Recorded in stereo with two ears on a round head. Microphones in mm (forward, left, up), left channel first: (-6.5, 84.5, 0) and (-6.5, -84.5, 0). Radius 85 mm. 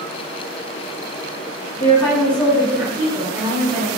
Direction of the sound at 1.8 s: 30° left (ahead or behind).